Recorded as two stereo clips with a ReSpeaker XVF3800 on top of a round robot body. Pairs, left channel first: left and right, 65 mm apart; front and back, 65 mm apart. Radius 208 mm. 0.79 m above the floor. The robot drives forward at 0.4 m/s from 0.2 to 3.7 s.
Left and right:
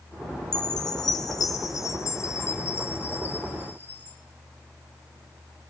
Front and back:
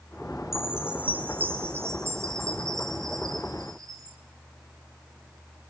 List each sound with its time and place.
0.5 s a chime: 95° left, 0.8 m; by 4.2 s 150° left, 1.5 m